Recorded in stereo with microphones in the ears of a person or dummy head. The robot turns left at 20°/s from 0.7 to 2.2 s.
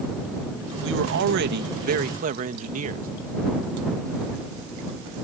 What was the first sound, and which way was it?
A man speaking, 70° right (ahead or behind).